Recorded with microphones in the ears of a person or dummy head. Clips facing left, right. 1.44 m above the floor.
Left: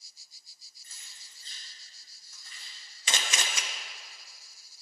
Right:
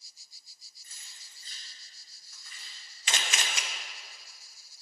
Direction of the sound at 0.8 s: 35° left (ahead or behind).